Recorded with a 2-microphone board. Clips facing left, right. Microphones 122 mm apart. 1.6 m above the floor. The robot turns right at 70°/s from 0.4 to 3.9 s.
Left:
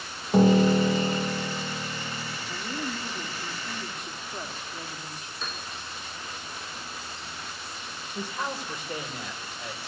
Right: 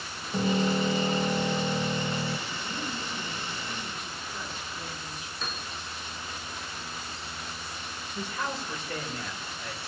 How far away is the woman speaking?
About 2.5 m.